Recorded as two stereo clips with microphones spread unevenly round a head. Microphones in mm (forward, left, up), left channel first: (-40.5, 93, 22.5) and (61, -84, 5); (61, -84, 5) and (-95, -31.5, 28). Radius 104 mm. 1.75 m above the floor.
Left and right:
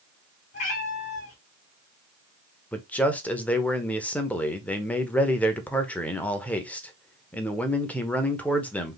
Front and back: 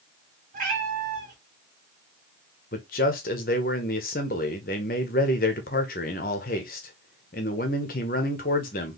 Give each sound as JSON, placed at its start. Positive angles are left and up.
{"t": 0.5, "sound": "a cat meowing", "azimuth_deg": 155, "distance_m": 2.0}
{"t": 2.7, "sound": "a man speaking", "azimuth_deg": 35, "distance_m": 0.9}